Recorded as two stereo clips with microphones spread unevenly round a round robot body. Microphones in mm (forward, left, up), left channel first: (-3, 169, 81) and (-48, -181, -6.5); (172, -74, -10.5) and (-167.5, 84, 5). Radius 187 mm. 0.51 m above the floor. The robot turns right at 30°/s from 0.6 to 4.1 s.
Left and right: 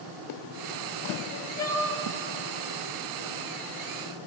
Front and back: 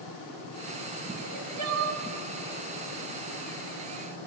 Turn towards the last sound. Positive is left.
turn(degrees=-110)